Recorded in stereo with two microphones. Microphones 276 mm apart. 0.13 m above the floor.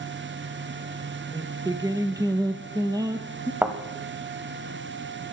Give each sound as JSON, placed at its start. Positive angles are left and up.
{"t": 1.3, "sound": "singing", "side_deg": -15, "distance_m": 0.9}
{"t": 3.6, "sound": "a thud", "side_deg": -10, "distance_m": 1.5}